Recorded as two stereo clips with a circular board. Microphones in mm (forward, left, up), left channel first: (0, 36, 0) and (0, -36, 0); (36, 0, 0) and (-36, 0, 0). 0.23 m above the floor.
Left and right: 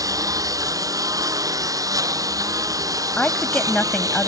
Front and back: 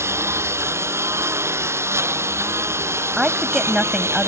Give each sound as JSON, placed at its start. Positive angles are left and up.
{"t": 0.0, "sound": "a lawn mower", "azimuth_deg": -125}
{"t": 3.2, "sound": "a woman speaking", "azimuth_deg": 120}